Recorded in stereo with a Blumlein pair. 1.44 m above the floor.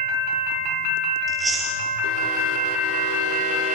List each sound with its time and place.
1.3 s chewing: 5° right, 9 m